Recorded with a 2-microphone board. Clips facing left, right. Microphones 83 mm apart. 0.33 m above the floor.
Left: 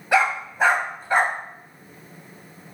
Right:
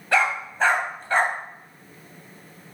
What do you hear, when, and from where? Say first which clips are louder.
0.1 s a dog barking: left 2 dB; 10° left (ahead or behind), 0.7 m